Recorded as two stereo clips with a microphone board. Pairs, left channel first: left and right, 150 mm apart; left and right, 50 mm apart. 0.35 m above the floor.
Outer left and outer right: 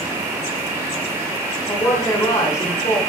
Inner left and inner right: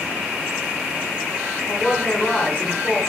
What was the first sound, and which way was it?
A woman speaking, 20° left (ahead or behind).